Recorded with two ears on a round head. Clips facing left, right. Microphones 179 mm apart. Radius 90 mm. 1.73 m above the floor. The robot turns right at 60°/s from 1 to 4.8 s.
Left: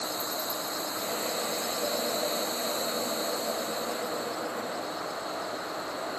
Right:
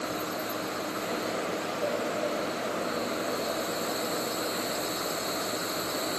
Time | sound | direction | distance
0.0 | an insect | 20° left | ?